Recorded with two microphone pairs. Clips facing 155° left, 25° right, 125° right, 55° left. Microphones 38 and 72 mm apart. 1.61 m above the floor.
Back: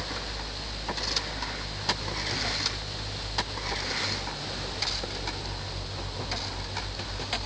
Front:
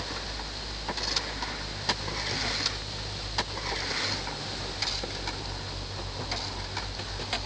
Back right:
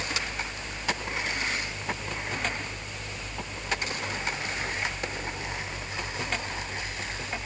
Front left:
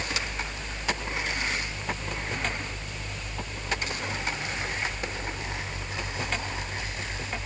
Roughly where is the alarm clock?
I don't hear an alarm clock.